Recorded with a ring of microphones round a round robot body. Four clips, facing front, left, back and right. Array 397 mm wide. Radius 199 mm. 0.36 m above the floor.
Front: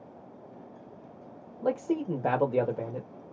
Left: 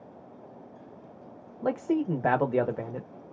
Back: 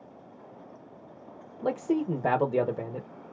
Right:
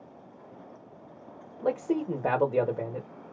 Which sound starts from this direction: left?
A man speaking, at 1.6 s.